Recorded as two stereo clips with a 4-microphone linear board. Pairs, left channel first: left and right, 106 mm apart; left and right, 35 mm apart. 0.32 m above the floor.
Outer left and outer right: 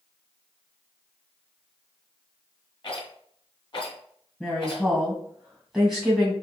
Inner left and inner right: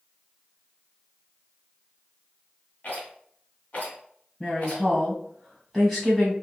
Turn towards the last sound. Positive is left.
turn(degrees=5)  # may be behind; listen again after turning